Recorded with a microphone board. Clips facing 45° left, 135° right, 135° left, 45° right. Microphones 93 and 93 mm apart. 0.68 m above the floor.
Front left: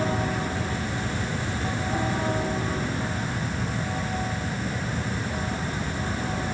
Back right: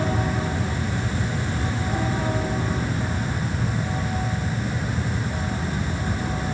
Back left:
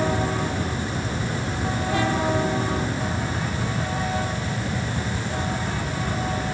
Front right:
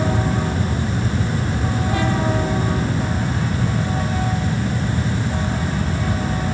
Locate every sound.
Only background noise.